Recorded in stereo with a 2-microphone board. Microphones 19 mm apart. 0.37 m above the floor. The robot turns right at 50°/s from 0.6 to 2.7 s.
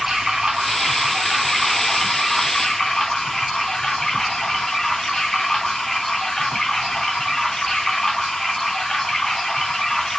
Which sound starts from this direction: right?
Running water, at 0.0 s.